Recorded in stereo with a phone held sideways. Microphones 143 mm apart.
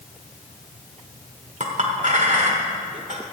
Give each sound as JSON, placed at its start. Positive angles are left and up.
{"t": 1.6, "sound": "a clink", "side_deg": -60, "distance_m": 1.4}